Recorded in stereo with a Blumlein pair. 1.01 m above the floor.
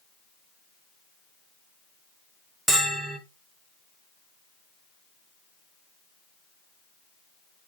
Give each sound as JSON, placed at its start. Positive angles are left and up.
{"t": 2.7, "sound": "a bell", "azimuth_deg": -5, "distance_m": 0.6}